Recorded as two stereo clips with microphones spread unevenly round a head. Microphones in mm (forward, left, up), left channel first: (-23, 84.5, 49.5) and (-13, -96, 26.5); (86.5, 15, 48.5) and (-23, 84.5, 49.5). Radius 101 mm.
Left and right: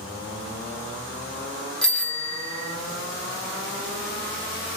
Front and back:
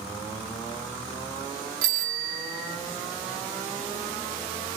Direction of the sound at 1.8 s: Straight behind.